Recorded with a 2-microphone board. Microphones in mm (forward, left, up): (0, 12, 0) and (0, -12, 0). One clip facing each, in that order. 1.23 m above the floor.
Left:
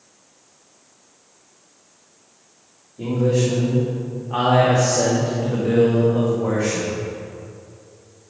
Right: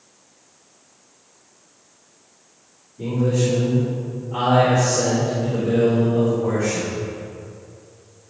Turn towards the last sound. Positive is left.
turn(degrees=40)  # may be behind; listen again after turning